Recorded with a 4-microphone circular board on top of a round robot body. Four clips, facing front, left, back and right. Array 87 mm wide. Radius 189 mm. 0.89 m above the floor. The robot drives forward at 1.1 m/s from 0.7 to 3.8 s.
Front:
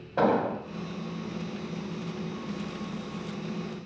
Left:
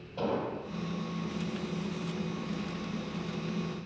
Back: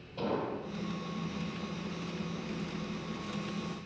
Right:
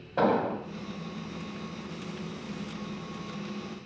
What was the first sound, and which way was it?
An explosion, 35° right.